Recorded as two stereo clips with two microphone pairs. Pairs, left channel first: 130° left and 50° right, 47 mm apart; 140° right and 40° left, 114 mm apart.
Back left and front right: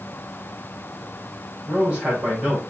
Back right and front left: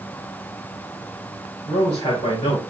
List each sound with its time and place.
1.7 s a man speaking: 125° right, 3 m